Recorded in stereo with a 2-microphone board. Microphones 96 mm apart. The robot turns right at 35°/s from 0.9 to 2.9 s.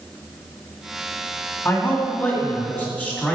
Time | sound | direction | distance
1.6 | a man speaking | 20° left (ahead or behind) | 1.7 m